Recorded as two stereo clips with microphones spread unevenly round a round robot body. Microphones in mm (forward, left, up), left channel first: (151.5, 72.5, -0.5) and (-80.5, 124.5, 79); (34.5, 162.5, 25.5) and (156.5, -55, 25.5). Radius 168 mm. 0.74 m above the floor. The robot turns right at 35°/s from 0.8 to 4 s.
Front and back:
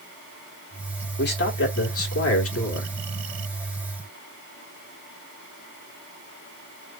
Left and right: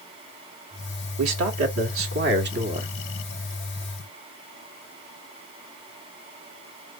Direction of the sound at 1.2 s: 60° right.